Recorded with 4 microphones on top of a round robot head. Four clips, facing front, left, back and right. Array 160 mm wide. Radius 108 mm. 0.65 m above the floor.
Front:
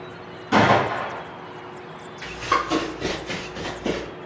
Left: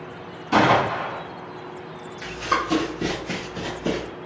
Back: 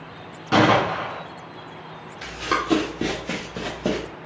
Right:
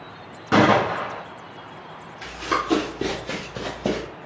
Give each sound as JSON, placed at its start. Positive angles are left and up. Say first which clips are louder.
{"t": 0.5, "sound": "a gunshot", "louder": "right 1 dB, even", "azimuth_deg": -120, "distance_m": 1.8}
{"t": 2.2, "sound": "running footsteps", "louder": "left 1 dB, front 2 dB", "azimuth_deg": -170, "distance_m": 1.7}